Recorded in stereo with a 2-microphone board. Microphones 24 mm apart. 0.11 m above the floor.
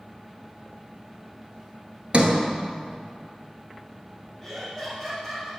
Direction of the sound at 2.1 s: 50° right (ahead or behind).